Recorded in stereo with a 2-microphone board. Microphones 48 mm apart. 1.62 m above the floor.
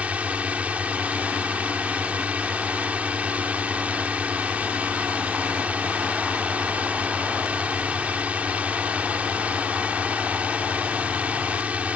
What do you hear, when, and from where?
0.0 s a drone: 25° right (ahead or behind)